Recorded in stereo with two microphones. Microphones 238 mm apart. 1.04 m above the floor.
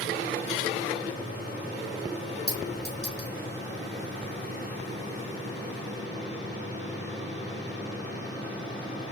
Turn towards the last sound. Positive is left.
turn(degrees=-65)  # may be behind; listen again after turning